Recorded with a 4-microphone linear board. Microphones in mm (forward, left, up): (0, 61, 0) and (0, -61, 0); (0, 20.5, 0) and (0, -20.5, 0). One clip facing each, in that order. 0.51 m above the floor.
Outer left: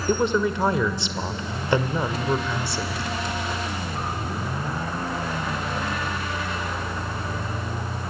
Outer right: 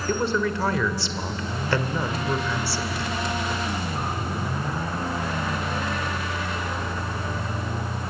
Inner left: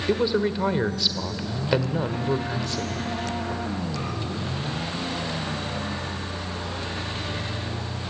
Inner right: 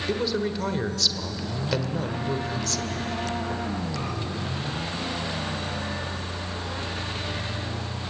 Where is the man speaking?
20° left (ahead or behind), 1.5 m.